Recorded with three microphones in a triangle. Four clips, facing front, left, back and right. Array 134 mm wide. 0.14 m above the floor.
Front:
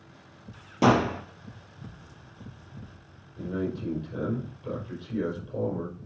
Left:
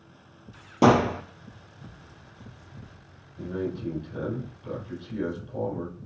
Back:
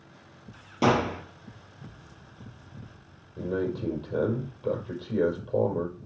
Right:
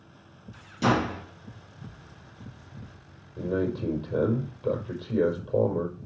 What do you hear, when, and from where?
0.8 s a gunshot: 90° left, 1.9 m
3.4 s a man speaking: 125° right, 6 m